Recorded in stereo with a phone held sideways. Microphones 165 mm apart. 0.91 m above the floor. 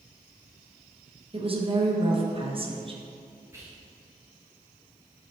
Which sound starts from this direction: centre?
Whispering, at 3.5 s.